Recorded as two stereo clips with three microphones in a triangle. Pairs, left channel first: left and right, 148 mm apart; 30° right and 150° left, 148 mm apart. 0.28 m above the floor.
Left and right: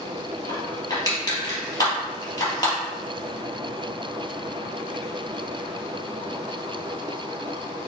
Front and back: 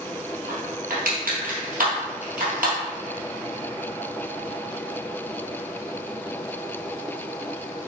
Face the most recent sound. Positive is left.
turn(degrees=155)